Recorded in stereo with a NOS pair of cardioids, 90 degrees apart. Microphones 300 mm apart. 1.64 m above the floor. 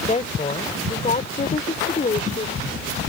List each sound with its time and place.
0.1 s a woman speaking: 25° left; by 3.0 s 30° left